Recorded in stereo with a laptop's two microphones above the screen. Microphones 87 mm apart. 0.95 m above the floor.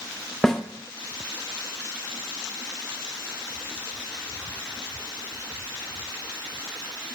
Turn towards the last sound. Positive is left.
turn(degrees=5)  # may be behind; listen again after turning